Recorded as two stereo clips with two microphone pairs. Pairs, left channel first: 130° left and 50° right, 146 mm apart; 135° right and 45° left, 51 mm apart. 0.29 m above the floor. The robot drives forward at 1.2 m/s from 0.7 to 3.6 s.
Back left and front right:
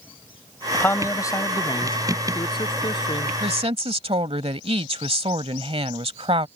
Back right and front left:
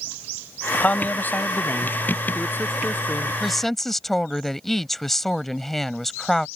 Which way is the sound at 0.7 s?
165° right.